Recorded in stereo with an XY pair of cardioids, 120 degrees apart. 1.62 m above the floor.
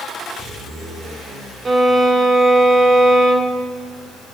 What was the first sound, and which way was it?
A violin, 25° right.